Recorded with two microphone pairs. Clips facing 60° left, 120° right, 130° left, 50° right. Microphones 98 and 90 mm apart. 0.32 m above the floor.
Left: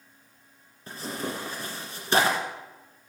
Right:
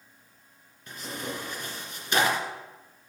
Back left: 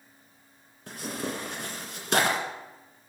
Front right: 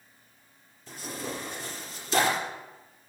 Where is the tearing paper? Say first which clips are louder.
Left 3 dB, back left 3 dB; 115° left, 1.8 m.